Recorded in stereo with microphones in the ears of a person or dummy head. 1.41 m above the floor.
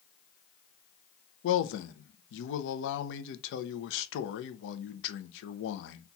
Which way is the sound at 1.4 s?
75° left (ahead or behind).